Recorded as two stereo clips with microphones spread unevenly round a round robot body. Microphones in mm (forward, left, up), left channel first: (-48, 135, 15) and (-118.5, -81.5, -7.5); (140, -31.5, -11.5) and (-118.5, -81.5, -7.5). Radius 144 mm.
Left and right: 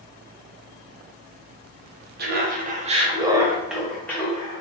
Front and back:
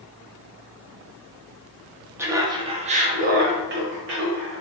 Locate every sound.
2.2 s laughter: 90° right, 0.8 m; by 4.6 s 150° left, 1.0 m